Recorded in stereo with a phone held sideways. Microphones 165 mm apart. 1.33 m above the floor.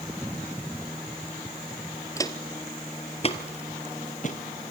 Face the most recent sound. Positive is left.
turn(degrees=50)  # may be behind; listen again after turning